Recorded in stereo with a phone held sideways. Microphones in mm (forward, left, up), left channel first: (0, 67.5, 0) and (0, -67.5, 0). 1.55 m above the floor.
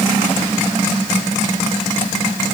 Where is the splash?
No splash in this recording.